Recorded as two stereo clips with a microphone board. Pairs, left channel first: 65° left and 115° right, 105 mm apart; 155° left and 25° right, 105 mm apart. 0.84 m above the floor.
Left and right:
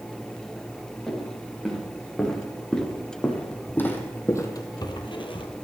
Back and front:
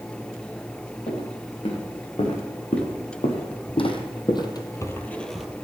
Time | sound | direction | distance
1.1 | footsteps | 160° left | 5.5 m